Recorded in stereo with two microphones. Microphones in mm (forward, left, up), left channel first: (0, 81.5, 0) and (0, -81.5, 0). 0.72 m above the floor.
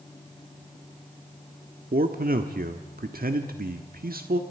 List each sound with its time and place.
1.9 s a man speaking: 65° right (ahead or behind), 1.3 m